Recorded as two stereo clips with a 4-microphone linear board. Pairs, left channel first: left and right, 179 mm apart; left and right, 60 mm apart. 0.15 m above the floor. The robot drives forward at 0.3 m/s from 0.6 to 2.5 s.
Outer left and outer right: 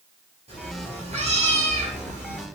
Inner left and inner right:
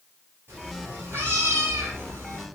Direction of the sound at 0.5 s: 35° right (ahead or behind).